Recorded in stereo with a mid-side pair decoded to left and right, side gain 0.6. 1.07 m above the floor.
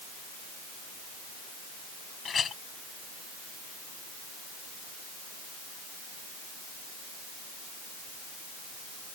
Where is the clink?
35° left.